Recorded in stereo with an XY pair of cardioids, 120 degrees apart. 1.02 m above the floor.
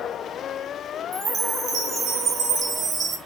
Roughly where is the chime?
Ahead right.